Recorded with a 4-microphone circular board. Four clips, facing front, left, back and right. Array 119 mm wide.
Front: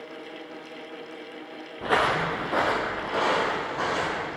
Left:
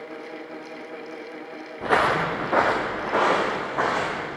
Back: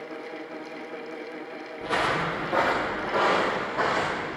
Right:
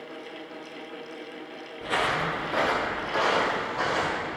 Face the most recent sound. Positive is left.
turn(degrees=100)